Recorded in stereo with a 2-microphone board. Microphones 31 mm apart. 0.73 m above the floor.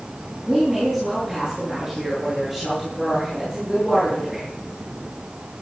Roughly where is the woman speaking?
Centre.